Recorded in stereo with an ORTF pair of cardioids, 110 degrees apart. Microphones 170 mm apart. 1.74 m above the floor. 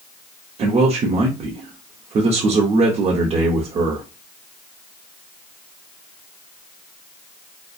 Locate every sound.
0.6 s a man speaking: 40° right, 0.6 m